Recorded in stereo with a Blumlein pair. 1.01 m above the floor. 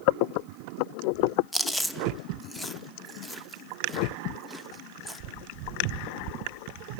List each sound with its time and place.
1.5 s chewing: straight ahead, 1.0 m